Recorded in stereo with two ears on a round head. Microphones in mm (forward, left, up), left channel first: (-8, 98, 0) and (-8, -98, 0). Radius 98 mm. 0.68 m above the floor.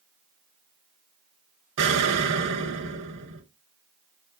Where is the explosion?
60° right (ahead or behind), 0.7 m.